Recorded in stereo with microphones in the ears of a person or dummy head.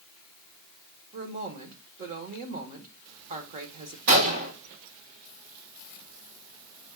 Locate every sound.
1.1 s a woman speaking: 35° right (ahead or behind), 1.3 m
4.1 s a gunshot: 60° right (ahead or behind), 1.4 m